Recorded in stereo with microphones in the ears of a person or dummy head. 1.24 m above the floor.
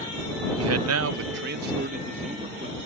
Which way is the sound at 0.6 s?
75° right (ahead or behind).